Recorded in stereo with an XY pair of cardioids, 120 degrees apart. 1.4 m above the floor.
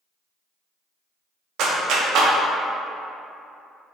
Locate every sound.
1.6 s a clap: 70° right, 0.5 m